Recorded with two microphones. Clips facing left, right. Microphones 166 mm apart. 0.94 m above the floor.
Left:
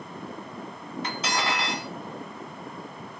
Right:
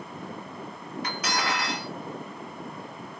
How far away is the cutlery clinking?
About 1.1 m.